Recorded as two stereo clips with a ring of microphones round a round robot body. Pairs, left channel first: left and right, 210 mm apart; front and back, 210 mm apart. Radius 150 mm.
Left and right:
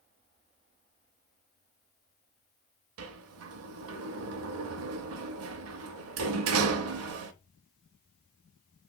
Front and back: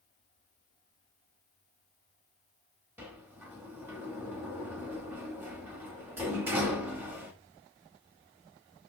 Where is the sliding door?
95° right, 0.5 m.